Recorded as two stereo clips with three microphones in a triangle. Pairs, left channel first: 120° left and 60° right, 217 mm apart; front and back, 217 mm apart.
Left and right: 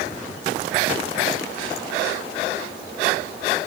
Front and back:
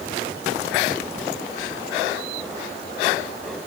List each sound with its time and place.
Only background noise.